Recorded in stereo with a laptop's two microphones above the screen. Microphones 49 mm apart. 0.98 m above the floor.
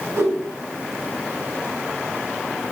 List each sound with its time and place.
0.2 s a whoosh: 70° right (ahead or behind), 0.9 m